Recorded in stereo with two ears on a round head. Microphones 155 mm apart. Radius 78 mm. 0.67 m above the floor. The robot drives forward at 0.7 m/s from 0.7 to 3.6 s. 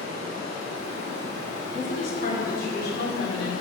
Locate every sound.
0.0 s running water: 35° left (ahead or behind), 3 m; by 3.6 s 80° left, 1.8 m
1.6 s a woman speaking: 45° left (ahead or behind), 2.5 m; by 3.5 s 60° left (ahead or behind), 2 m